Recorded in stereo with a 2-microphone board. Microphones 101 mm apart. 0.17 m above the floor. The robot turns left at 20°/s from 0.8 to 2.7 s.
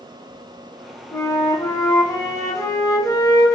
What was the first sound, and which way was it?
A flute, 130° left.